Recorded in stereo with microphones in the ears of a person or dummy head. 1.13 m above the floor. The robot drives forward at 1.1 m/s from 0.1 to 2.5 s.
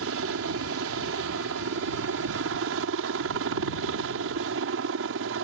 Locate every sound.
0.0 s a helicopter: 65° right (ahead or behind)